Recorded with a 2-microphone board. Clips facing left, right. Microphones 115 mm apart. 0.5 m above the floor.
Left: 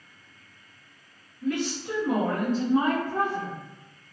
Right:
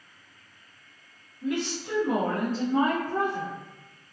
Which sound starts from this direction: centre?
A woman speaking, at 1.4 s.